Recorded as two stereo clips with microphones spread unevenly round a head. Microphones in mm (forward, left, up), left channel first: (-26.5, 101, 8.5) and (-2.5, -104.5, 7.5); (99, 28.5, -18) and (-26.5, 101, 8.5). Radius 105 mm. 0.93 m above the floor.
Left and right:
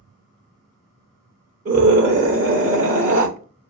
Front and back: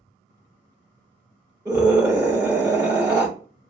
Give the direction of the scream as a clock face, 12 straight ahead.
5 o'clock.